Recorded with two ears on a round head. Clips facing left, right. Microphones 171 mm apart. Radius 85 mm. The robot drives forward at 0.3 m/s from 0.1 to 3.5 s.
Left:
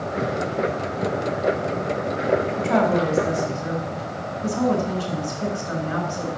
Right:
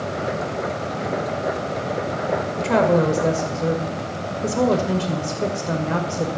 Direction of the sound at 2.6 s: 70° right (ahead or behind).